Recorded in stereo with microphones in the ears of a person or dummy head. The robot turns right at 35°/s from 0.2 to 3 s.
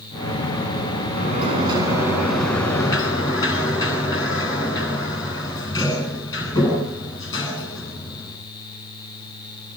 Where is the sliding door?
40° right, 9.5 m; by 8.4 s 25° left, 9.5 m.